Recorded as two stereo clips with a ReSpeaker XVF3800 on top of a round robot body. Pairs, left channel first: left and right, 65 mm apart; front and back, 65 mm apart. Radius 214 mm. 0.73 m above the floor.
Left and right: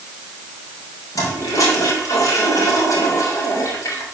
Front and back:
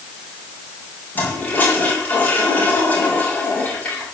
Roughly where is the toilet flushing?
Ahead left.